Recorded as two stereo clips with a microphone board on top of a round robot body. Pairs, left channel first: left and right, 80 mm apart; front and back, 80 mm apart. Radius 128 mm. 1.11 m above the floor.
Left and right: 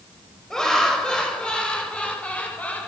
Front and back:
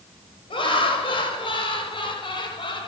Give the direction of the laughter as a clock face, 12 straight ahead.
12 o'clock.